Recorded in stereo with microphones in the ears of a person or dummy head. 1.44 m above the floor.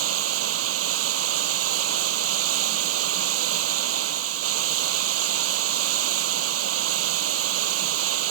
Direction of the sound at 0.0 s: 80° right.